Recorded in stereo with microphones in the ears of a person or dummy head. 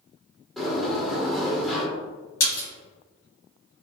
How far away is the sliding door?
About 1.6 m.